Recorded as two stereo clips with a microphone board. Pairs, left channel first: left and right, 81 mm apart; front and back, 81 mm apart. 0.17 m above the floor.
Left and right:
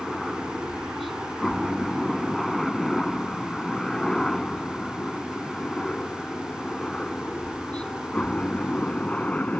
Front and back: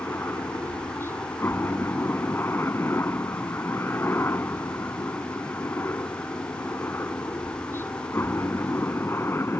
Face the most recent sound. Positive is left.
turn(degrees=25)